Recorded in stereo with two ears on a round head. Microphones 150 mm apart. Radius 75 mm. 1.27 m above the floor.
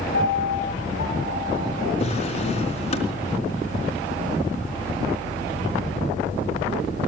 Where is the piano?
85° left, 8.5 m.